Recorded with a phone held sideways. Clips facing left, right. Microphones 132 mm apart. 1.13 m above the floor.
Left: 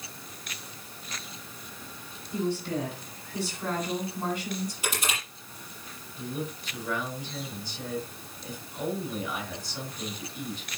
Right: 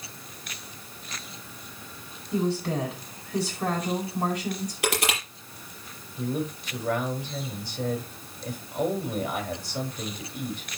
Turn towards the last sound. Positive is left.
turn(degrees=-65)  # may be behind; listen again after turning